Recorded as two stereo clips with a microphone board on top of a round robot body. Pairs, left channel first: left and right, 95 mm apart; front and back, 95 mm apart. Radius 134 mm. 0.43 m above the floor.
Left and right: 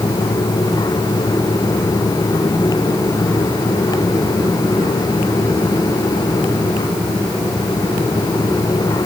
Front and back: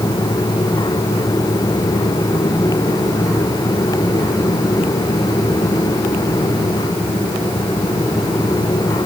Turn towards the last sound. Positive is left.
No sound to turn to.